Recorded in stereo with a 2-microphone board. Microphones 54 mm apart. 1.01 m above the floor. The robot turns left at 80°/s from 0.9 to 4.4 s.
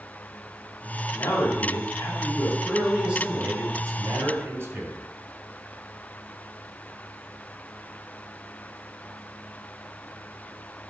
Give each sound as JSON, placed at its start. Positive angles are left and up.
{"t": 1.1, "sound": "a man speaking", "azimuth_deg": 130, "distance_m": 3.5}